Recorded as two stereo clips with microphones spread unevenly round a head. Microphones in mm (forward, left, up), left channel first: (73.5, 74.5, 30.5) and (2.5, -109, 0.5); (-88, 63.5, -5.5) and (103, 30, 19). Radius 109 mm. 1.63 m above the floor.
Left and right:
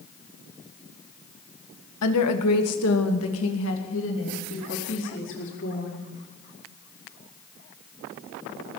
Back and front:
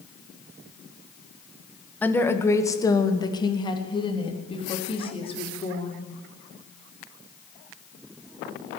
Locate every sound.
2.0 s a woman speaking: 90° left, 1.8 m; by 6.1 s 110° left, 5 m